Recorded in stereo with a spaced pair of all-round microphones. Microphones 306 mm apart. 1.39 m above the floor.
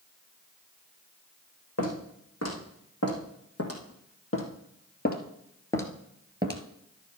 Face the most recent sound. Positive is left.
turn(degrees=-25)  # may be behind; listen again after turning